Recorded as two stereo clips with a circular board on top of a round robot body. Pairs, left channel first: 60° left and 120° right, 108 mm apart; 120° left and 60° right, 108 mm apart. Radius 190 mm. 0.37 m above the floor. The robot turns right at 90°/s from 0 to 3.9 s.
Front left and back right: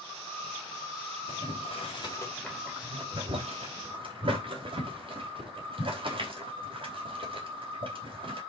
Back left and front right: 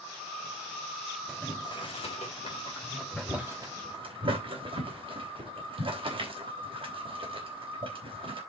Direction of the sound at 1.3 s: 35° left.